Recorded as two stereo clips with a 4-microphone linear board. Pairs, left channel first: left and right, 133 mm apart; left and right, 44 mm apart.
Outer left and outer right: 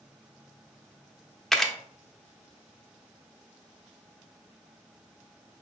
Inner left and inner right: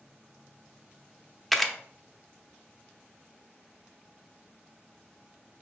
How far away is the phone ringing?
No phone ringing in this recording.